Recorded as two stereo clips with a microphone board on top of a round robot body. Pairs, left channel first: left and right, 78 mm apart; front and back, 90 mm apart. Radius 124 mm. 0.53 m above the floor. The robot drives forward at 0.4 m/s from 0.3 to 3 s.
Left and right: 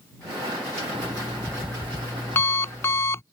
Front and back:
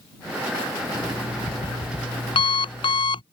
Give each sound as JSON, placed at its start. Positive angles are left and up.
{"t": 0.9, "sound": "an alarm clock", "azimuth_deg": 25}